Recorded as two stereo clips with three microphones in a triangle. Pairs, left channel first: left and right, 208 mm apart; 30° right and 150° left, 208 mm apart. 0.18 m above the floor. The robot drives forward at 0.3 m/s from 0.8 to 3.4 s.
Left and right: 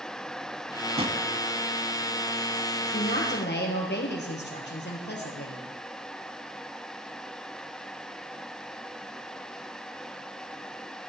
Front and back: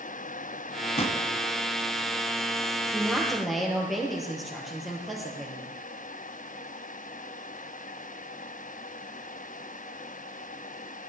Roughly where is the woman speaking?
Ahead left.